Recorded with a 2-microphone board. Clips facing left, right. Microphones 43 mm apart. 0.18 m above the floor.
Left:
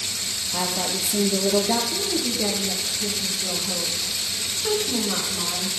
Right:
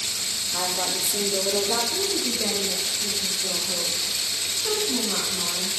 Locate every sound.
0.5 s a woman speaking: 65° left (ahead or behind), 3.5 m
1.9 s a woman speaking: 70° left (ahead or behind), 8.5 m